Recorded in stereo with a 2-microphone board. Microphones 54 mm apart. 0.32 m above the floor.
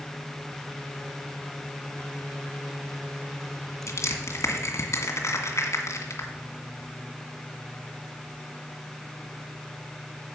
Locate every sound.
3.9 s crushing: 65° left (ahead or behind), 2.0 m